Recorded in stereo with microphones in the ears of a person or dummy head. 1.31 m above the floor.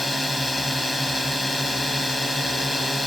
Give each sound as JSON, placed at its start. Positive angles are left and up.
{"t": 0.0, "sound": "a drone", "side_deg": 5}